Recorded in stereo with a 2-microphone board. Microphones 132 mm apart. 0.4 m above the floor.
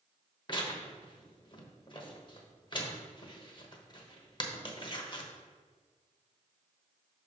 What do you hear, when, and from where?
0.5 s tearing paper: 35° left (ahead or behind), 1.0 m